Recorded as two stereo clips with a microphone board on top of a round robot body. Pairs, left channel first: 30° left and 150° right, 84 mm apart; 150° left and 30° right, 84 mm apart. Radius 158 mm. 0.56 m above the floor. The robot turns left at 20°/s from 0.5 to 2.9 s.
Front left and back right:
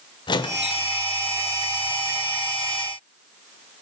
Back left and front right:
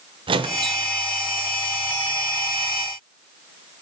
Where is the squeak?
5° right, 0.6 m; by 0.9 s 15° right, 0.6 m.